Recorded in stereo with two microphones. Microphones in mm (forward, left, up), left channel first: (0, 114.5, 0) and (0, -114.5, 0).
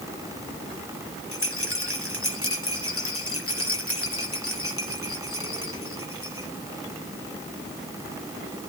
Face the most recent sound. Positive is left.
turn(degrees=75)  # may be behind; listen again after turning